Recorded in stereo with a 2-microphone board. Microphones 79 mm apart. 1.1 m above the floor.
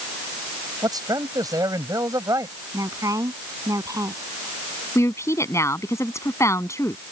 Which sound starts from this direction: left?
A woman speaking, at 5.0 s.